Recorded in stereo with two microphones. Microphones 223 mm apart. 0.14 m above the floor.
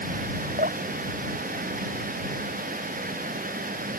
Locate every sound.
0.6 s dripping: 45° right (ahead or behind)